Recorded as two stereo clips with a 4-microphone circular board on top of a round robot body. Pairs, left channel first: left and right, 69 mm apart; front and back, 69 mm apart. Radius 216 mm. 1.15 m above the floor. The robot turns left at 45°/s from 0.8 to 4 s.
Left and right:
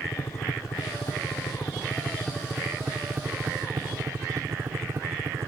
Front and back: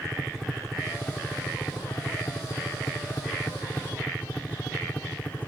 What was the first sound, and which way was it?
A helicopter, 80° left.